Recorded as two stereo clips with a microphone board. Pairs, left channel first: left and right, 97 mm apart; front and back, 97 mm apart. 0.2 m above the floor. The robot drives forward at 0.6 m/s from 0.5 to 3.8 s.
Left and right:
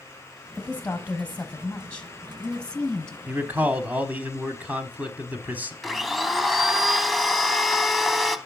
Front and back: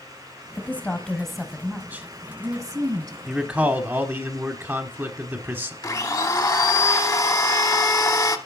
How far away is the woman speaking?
About 1.2 m.